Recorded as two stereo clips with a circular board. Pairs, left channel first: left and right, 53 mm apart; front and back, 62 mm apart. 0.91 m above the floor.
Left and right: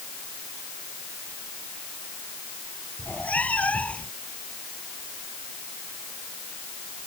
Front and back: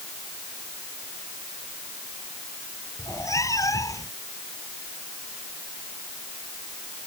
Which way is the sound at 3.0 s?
30° left.